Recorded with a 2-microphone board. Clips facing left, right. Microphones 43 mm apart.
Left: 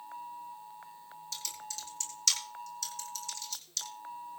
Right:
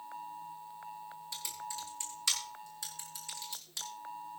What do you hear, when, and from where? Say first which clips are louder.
1.3 s typing on a keyboard: right 1 dB; 20° right (ahead or behind), 3.5 m